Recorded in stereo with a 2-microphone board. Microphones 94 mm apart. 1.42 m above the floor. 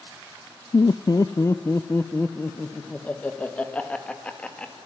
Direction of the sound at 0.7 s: 55° left (ahead or behind).